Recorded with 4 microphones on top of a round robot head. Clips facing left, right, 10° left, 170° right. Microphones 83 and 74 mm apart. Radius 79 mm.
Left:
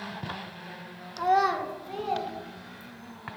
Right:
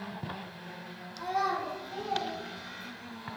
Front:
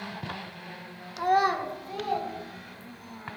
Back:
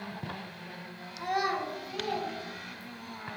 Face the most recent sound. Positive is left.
turn(degrees=75)